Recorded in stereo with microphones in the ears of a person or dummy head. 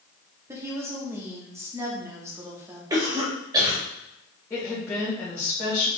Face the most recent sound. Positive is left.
turn(degrees=10)  # may be behind; listen again after turning